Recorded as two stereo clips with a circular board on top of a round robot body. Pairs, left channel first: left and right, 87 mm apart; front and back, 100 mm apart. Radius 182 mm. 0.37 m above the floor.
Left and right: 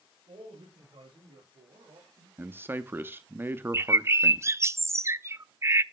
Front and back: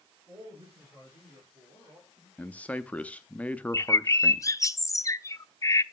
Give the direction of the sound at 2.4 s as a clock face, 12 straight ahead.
2 o'clock.